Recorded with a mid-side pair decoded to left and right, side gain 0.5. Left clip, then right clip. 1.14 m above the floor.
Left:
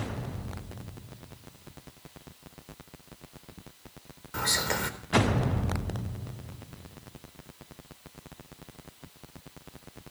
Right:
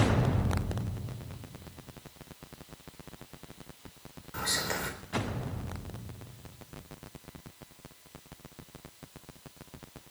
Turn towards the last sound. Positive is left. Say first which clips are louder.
# left 4 dB
turn(degrees=30)